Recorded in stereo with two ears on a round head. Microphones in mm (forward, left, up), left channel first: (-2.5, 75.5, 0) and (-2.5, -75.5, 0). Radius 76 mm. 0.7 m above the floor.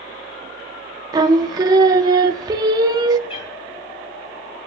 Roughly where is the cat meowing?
Left.